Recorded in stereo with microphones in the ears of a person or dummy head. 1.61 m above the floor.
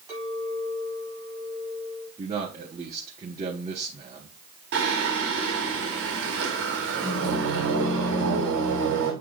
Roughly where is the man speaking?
Right.